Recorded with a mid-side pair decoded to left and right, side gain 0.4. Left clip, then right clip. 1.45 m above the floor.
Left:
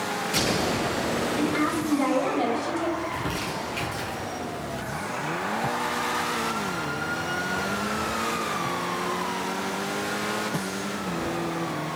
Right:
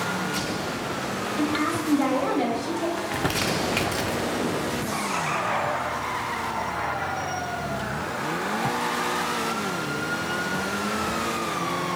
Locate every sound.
1.4 s a woman speaking: straight ahead, 1.6 m
3.0 s crumpling: 60° right, 0.6 m